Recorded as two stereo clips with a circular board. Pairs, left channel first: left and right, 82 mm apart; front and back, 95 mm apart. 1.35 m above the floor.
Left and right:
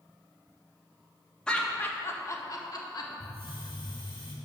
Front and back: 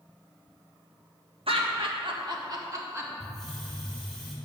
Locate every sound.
1.5 s laughter: 170° left, 1.7 m; by 3.1 s 120° left, 2.0 m
3.2 s a hiss: 90° left, 2.5 m